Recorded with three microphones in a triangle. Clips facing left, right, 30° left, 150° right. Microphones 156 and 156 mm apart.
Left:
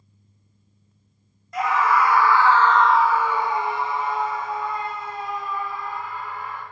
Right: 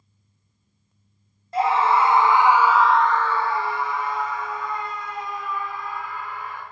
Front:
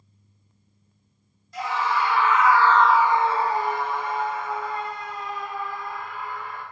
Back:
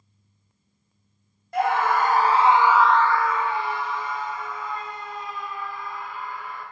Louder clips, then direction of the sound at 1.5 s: Right 2 dB, back 4 dB; 145° right.